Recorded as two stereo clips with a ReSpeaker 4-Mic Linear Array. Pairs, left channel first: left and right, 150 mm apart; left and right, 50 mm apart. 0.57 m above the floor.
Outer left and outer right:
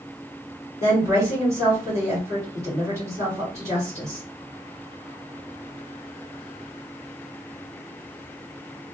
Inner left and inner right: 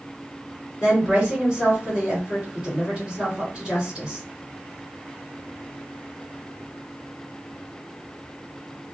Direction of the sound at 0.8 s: 20° right (ahead or behind).